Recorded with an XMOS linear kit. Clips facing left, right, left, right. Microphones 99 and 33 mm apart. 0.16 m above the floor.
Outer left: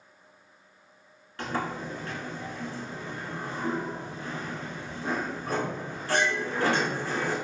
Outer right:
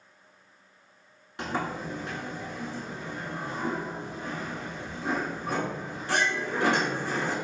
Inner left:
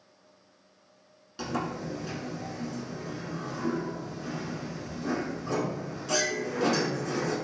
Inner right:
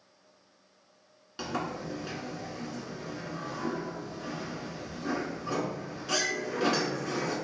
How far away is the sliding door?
About 0.8 m.